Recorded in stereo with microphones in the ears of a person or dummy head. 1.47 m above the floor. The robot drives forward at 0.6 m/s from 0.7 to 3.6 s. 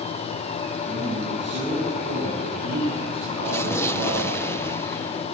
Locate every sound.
0.8 s a man speaking: 75° right (ahead or behind), 10 m; by 4.5 s 65° right (ahead or behind), 10.5 m
3.5 s an explosion: 20° left (ahead or behind), 1.0 m